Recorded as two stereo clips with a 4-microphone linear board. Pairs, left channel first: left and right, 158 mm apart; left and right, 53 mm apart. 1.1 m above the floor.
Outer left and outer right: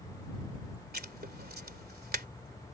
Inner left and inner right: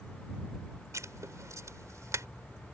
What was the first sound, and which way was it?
Writing, 70° right (ahead or behind).